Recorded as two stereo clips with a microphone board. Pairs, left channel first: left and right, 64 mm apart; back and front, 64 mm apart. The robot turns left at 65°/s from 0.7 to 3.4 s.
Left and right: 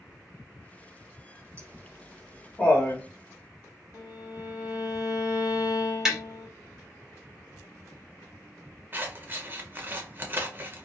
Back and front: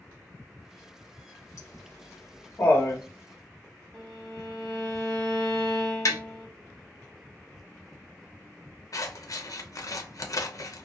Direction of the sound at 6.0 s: 170° right.